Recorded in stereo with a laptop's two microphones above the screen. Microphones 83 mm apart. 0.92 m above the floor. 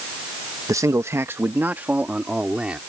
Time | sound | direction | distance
0.7 | a man speaking | 40° right (ahead or behind) | ?